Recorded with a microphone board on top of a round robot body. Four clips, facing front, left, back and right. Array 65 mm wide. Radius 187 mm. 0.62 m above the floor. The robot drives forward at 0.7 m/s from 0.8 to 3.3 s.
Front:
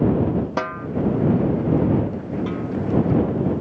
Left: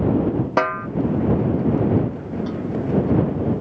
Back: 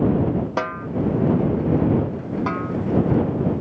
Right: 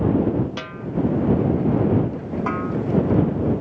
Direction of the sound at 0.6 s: 95° left.